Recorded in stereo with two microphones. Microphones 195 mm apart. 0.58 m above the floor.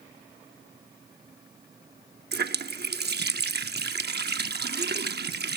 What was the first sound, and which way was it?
A running tap, 55° right (ahead or behind).